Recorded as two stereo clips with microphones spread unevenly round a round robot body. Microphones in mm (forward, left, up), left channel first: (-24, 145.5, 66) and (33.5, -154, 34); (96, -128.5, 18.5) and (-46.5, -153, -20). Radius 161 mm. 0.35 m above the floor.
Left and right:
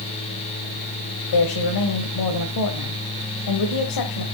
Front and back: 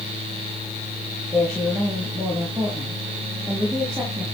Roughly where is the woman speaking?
Left.